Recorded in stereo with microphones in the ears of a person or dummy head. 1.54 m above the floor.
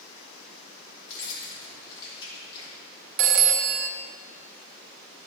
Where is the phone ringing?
55° right (ahead or behind), 0.7 m.